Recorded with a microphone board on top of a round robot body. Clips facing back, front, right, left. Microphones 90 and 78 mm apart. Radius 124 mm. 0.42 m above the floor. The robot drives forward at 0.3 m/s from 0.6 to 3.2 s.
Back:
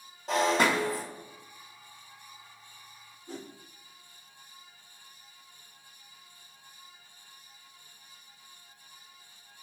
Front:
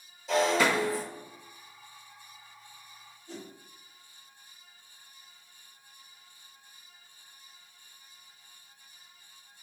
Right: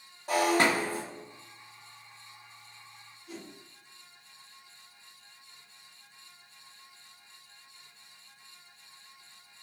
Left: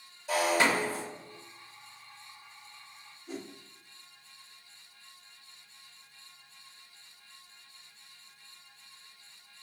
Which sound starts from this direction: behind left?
A whoosh, at 3.3 s.